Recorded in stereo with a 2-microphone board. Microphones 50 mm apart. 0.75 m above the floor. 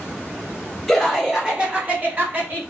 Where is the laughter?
Centre (ahead or behind), 1.2 m; by 2.6 s 45° right (ahead or behind), 1.4 m.